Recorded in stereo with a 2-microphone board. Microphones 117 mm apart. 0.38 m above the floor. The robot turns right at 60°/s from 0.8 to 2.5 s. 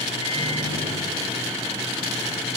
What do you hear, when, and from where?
0.2 s a microwave: 95° right; by 2.5 s 5° left